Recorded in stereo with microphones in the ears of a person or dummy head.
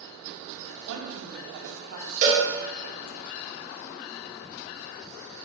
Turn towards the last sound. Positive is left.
turn(degrees=-35)  # may be behind; listen again after turning